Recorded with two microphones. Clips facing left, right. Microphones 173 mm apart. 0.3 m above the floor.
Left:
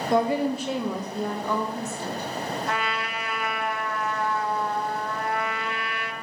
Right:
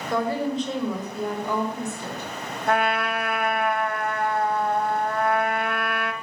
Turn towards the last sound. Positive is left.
turn(degrees=-55)  # may be behind; listen again after turning